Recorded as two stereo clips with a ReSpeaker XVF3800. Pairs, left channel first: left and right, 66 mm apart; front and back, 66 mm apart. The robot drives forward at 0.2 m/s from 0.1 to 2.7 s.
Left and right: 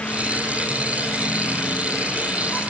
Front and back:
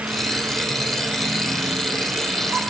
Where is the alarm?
No alarm in this recording.